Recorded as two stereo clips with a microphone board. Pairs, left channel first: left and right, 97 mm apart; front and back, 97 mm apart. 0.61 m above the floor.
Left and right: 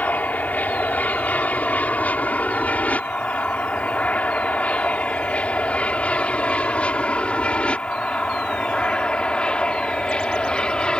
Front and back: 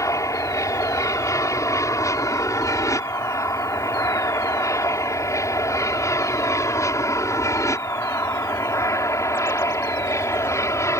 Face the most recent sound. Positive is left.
turn(degrees=20)